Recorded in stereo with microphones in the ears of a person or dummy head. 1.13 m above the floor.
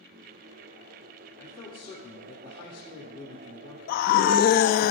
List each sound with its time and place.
1.4 s a man speaking: 25° left (ahead or behind), 2.5 m
3.9 s a scream: 50° left (ahead or behind), 1.0 m